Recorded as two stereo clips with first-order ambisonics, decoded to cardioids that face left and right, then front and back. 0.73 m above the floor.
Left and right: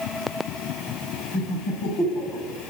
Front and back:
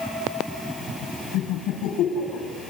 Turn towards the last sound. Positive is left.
turn(degrees=35)